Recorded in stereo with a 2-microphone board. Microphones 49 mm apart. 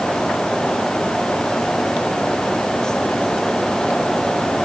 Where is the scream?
I don't hear a scream.